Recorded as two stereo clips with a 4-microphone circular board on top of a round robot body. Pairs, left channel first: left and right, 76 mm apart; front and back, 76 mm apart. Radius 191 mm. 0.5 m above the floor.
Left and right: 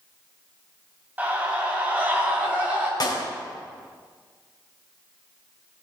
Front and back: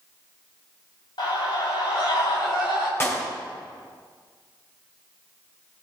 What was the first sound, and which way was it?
A scream, 20° right.